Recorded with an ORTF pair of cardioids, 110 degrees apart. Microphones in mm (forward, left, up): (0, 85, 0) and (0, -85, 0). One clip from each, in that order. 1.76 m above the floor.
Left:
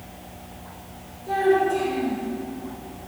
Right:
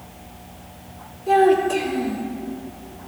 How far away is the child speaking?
About 4 m.